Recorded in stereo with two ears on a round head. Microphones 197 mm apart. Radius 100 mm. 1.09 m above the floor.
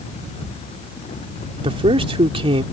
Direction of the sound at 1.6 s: 25° right (ahead or behind).